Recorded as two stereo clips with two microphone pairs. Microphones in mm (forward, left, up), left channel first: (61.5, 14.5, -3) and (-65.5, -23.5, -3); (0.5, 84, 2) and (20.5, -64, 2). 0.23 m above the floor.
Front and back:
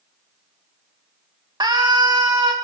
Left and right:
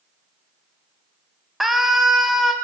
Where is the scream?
170° right, 1.2 m.